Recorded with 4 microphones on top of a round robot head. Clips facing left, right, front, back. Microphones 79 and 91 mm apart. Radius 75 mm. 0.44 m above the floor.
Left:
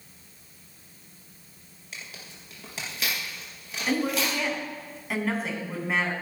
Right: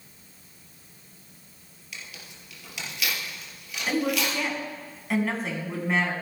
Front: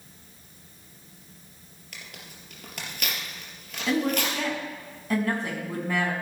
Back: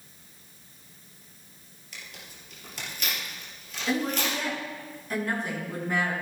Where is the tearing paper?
35° left, 3.5 m.